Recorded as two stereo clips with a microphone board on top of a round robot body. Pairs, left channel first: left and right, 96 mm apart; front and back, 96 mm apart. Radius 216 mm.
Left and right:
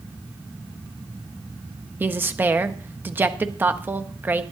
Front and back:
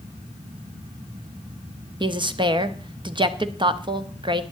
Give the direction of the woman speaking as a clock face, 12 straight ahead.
5 o'clock.